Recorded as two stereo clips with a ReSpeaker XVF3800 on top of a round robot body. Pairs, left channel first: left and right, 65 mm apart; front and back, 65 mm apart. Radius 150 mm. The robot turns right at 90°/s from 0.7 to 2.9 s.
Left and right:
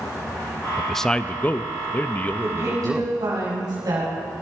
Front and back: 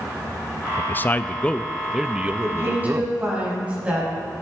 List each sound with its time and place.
0.8 s a man speaking: 5° right, 0.6 m; by 3.1 s 175° right, 0.6 m
2.4 s a woman speaking: 155° right, 5 m; by 4.1 s 110° right, 5 m